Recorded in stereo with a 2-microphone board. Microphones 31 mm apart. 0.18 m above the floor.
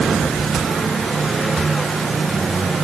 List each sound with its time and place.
Only background noise.